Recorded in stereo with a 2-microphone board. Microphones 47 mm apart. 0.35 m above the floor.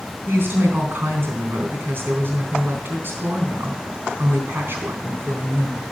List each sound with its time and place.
0.3 s a woman speaking: 45° right (ahead or behind), 3 m